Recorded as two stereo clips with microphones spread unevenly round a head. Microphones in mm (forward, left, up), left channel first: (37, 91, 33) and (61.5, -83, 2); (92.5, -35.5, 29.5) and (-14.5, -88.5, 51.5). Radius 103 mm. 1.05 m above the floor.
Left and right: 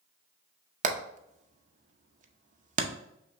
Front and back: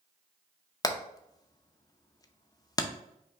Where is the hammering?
35° right, 0.7 m.